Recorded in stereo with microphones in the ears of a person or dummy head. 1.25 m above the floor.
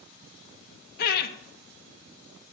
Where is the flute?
I don't hear a flute.